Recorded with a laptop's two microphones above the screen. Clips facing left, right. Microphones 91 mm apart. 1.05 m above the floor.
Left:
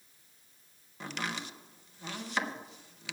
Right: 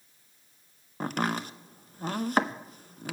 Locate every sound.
1.0 s chopping: 45° right (ahead or behind), 0.6 m